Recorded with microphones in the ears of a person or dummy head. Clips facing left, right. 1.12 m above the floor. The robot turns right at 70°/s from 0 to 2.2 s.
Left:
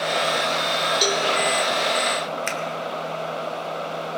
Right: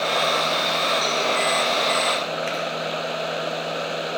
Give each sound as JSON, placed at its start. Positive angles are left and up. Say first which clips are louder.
{"t": 1.0, "sound": "a cowbell", "louder": "left 2 dB", "side_deg": 55, "distance_m": 2.0}
{"t": 2.5, "sound": "a finger snap", "louder": "right 2 dB", "side_deg": 60, "distance_m": 2.0}